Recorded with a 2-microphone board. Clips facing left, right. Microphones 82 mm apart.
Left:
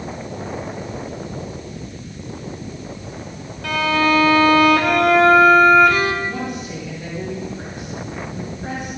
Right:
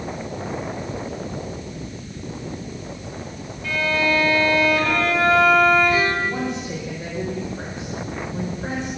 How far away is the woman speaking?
About 6 m.